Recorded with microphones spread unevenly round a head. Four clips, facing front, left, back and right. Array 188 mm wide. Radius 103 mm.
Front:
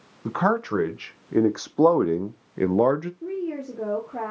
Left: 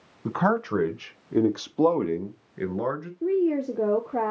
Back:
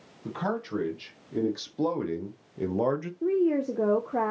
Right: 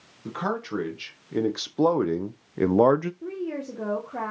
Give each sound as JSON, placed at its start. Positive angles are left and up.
{"t": 0.2, "sound": "a man speaking", "azimuth_deg": 15, "distance_m": 1.7}
{"t": 3.2, "sound": "a woman speaking", "azimuth_deg": 140, "distance_m": 1.0}